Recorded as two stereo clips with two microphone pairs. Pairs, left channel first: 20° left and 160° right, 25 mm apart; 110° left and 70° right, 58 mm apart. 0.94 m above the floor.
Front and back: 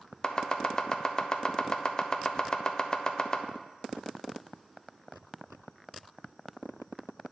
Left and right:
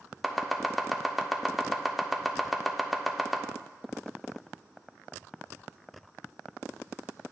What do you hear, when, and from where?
0.2 s chopping: 15° left, 0.6 m